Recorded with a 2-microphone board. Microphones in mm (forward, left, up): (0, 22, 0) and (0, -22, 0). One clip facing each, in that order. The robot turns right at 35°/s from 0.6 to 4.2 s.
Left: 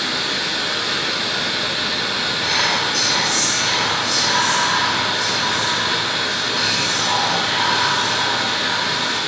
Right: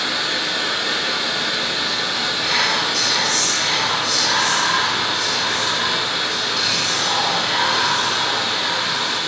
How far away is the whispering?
About 1.3 m.